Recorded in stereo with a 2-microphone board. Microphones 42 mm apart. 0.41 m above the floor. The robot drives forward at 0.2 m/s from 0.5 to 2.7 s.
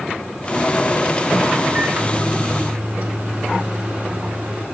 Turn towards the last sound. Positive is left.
turn(degrees=-45)  # may be behind; listen again after turning